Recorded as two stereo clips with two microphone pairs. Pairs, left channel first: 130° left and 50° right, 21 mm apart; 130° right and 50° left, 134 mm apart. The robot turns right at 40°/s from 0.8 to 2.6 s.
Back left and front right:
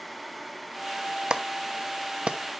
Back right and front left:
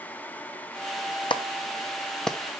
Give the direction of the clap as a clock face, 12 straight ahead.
3 o'clock.